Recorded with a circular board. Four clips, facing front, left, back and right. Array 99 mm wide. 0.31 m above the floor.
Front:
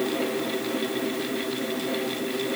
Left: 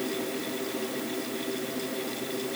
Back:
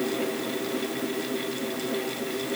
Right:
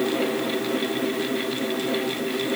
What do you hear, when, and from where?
Only background noise.